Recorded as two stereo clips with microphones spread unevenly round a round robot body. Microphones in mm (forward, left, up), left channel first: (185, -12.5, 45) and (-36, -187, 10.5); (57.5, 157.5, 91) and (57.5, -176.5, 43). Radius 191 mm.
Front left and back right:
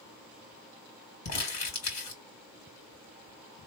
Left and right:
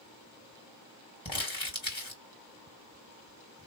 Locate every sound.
1.2 s crumpling: 10° left, 3 m